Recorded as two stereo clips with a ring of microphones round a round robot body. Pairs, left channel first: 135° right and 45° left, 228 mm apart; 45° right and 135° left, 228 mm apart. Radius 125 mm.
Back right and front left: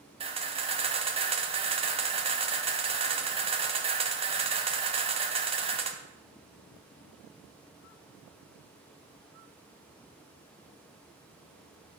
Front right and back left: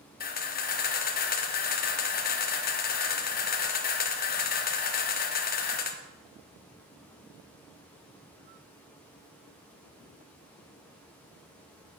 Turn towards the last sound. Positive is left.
turn(degrees=-10)